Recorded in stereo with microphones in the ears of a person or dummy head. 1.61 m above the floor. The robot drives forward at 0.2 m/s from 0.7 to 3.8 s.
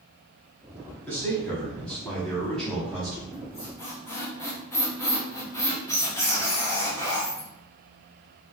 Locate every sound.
1.1 s a man speaking: 15° left (ahead or behind), 1.0 m; by 3.2 s 10° left (ahead or behind), 1.5 m
3.3 s a squeak: 25° left (ahead or behind), 0.9 m; by 7.5 s 20° left (ahead or behind), 1.0 m